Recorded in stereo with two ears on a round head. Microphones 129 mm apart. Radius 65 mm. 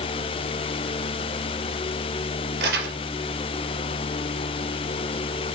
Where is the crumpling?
75° right (ahead or behind), 3.5 m.